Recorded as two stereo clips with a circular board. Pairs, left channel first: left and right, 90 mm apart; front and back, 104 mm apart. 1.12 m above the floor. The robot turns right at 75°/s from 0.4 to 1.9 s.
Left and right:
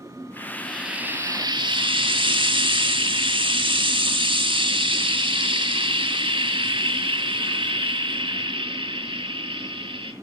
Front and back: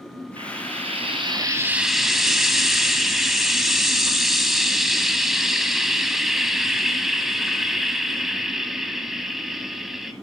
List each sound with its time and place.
0.4 s frying: 155° left, 2 m; by 10.1 s 95° right, 2 m